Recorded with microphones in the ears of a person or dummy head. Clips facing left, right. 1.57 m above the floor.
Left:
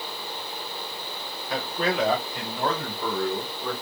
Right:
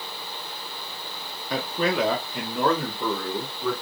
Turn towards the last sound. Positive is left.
turn(degrees=-60)  # may be behind; listen again after turning